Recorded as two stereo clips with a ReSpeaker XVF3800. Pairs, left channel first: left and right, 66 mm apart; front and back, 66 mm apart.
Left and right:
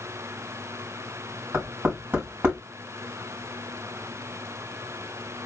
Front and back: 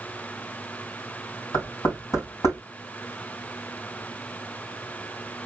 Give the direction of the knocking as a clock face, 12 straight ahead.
1 o'clock.